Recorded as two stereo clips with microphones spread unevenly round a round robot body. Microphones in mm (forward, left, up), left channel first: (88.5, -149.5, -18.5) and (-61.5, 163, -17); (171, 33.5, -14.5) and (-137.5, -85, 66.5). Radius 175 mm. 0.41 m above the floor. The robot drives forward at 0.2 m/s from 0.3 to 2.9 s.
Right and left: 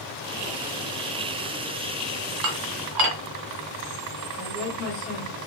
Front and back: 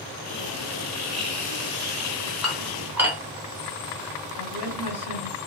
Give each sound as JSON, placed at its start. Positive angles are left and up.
{"t": 2.4, "sound": "dishes clattering", "azimuth_deg": 105, "distance_m": 0.9}
{"t": 4.4, "sound": "a woman speaking", "azimuth_deg": -165, "distance_m": 2.0}